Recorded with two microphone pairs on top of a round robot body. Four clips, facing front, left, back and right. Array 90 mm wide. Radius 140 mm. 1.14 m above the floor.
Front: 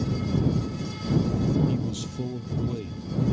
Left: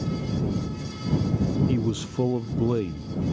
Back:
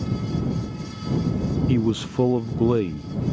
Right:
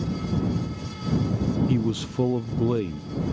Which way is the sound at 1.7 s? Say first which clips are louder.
Right 1 dB, back 8 dB; 170° right.